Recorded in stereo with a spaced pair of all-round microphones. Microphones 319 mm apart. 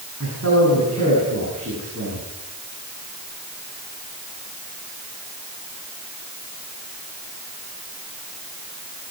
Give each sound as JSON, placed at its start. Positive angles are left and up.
{"t": 0.2, "sound": "a man speaking", "side_deg": -50, "distance_m": 9.0}